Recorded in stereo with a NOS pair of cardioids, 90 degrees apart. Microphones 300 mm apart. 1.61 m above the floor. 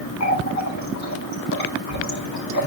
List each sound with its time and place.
0.2 s a running tap: 65° left, 4 m